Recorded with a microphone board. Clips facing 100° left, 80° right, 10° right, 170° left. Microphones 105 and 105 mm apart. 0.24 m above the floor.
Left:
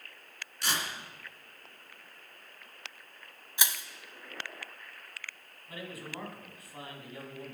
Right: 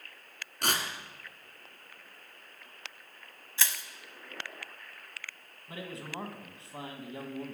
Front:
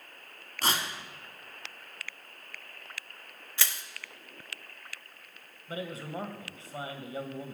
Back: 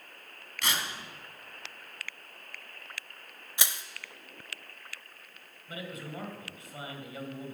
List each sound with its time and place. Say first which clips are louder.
0.6 s tearing paper: right 2 dB, front 3 dB; 60° right, 1.9 m
3.6 s crushing: even, back 1 dB; 135° left, 0.7 m
5.7 s a man speaking: right 1 dB, front 3 dB; 40° right, 1.6 m